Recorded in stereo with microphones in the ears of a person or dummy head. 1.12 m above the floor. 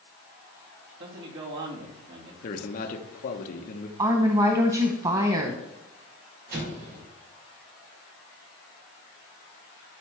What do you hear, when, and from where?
1.0 s a man speaking: 70° right (ahead or behind), 2.5 m
2.4 s a man speaking: 45° left (ahead or behind), 1.2 m
4.0 s a woman speaking: 25° right (ahead or behind), 0.9 m
6.5 s an explosion: 60° right (ahead or behind), 3.5 m